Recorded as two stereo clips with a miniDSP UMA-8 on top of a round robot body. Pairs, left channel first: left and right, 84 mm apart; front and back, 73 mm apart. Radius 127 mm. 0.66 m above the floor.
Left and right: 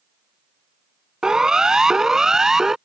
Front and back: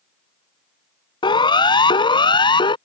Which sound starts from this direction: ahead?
A siren, at 1.2 s.